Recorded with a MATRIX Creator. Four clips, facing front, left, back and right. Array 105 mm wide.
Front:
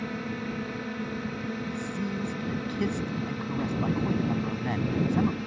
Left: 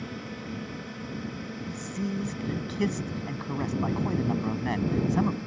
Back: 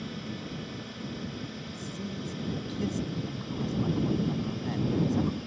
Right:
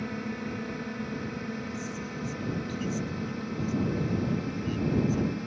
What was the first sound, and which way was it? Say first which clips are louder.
A drone: right 4 dB, front 5 dB; 20° right.